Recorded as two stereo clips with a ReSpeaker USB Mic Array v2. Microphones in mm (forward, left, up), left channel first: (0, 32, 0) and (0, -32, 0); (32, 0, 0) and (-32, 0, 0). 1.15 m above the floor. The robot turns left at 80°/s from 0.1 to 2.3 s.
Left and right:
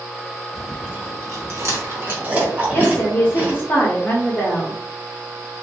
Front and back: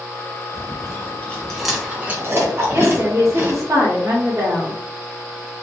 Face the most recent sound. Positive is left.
turn(degrees=145)